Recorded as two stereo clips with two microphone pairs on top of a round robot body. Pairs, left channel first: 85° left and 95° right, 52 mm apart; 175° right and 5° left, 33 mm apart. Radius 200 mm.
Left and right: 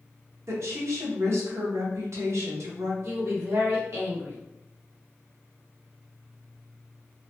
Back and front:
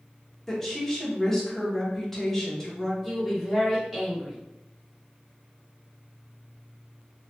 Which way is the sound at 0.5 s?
95° right.